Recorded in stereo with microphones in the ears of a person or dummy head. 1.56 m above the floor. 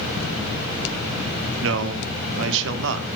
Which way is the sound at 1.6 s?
75° right (ahead or behind).